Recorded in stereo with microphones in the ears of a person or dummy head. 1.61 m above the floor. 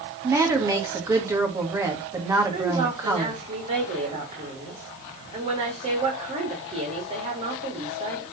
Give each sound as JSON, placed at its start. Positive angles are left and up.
{"t": 0.2, "sound": "a woman speaking", "side_deg": -20, "distance_m": 2.0}
{"t": 2.5, "sound": "a woman speaking", "side_deg": -35, "distance_m": 4.0}